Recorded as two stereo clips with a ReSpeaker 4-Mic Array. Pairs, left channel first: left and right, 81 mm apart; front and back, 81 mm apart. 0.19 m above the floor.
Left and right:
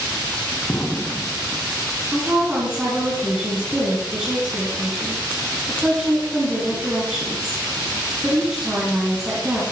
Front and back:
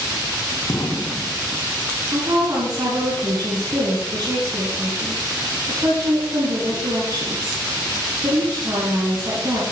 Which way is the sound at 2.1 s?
155° right.